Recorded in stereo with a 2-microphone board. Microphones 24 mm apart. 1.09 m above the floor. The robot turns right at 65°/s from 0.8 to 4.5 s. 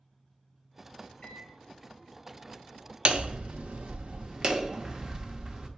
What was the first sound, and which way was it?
A microwave, 40° left (ahead or behind).